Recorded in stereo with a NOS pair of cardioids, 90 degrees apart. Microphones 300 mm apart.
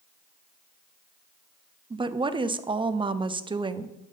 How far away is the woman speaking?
About 0.6 m.